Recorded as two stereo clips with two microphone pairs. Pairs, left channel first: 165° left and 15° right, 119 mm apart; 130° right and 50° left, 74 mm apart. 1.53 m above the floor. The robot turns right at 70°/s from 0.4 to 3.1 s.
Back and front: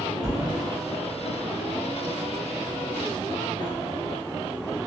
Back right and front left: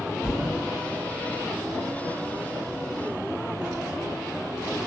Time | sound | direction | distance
0.2 | a thud | 60° right | 1.2 m